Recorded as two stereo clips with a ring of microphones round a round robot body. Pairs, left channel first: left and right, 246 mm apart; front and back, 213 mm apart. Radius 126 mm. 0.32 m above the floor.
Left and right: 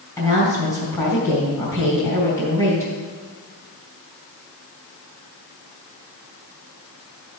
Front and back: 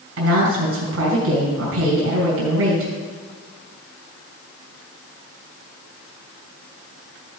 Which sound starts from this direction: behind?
A woman speaking, at 0.2 s.